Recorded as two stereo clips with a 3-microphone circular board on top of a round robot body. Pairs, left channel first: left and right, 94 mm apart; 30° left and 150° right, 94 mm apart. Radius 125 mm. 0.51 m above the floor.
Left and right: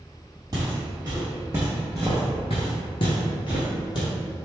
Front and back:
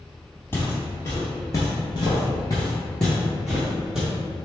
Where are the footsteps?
35° right, 1.1 m; by 4.1 s 125° left, 1.2 m.